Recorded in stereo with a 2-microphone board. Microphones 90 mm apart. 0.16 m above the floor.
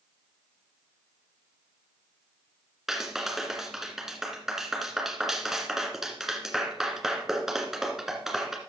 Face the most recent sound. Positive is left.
turn(degrees=-5)  # may be behind; listen again after turning